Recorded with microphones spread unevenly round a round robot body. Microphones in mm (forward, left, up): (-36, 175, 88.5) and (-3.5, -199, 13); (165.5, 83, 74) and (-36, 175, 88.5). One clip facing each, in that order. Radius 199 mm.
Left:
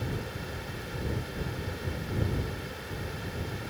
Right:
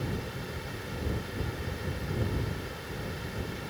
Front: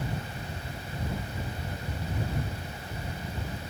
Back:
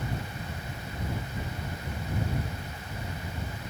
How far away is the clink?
I don't hear a clink.